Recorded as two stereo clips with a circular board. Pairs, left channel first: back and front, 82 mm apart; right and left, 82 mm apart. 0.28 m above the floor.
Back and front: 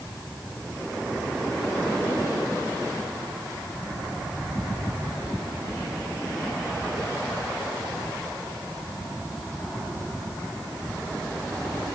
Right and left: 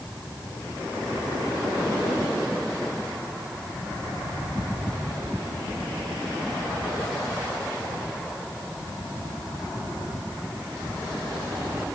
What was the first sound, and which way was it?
Only background noise.